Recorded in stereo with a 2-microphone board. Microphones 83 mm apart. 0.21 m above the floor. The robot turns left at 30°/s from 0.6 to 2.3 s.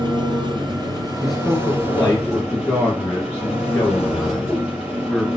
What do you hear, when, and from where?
0.0 s an engine running: 120° right, 5 m; by 5.4 s 170° right, 5 m
1.2 s a man speaking: 175° right, 3 m; by 5.3 s 150° left, 3 m